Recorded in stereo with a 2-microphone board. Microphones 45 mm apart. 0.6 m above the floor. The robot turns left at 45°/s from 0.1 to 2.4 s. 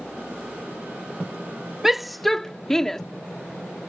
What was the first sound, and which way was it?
A shout, 10° right (ahead or behind).